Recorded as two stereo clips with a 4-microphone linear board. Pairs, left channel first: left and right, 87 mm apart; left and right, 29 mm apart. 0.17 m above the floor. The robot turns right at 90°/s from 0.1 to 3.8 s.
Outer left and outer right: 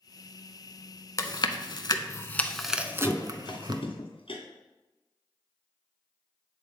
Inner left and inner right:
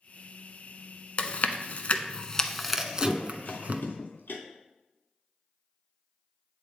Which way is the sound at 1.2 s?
40° left (ahead or behind).